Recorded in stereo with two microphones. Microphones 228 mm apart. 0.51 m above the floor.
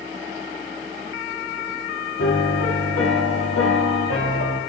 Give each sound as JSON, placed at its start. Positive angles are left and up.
{"t": 2.2, "sound": "a piano", "side_deg": 80, "distance_m": 4.5}